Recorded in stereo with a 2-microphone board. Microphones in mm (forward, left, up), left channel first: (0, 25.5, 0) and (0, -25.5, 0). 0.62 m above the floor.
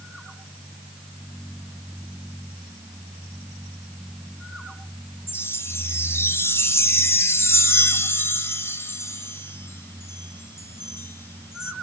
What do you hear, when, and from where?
5.3 s a chime: 55° left (ahead or behind), 0.6 m